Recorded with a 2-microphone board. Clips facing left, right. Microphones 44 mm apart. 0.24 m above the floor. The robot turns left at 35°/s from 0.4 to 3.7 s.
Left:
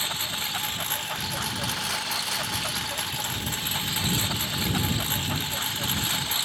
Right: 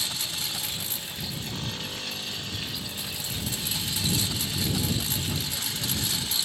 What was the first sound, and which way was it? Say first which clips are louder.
A lawn mower: left 3 dB; 150° left.